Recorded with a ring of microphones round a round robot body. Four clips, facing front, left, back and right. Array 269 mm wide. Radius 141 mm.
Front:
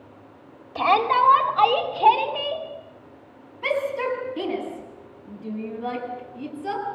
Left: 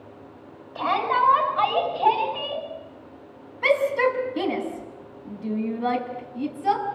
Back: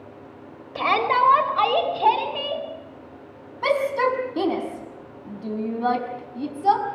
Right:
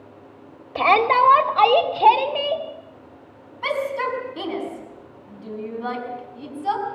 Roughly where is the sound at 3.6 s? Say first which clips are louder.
Left 4 dB, back 4 dB; behind.